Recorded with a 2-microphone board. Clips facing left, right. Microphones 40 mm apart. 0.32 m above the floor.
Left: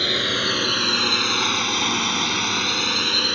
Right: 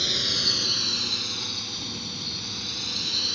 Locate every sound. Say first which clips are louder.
0.0 s a drone: left 6 dB; 35° left (ahead or behind); by 3.4 s 45° left (ahead or behind)